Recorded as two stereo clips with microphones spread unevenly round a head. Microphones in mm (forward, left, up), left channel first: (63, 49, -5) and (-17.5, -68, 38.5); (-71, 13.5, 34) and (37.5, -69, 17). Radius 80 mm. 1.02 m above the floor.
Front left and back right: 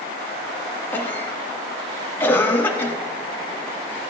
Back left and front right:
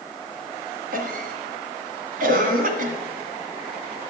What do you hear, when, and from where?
0.9 s a cough: 20° right, 1.9 m